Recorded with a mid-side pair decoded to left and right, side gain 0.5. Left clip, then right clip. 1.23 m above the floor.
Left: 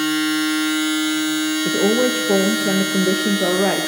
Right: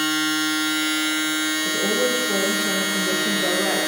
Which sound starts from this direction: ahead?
A machine running, at 0.0 s.